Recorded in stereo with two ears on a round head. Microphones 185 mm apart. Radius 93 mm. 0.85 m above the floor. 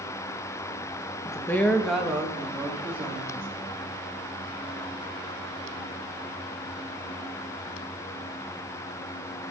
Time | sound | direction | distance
1.2 | a woman speaking | 20° left (ahead or behind) | 0.8 m